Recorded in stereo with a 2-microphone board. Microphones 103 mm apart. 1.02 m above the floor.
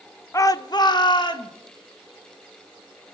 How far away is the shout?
About 0.5 m.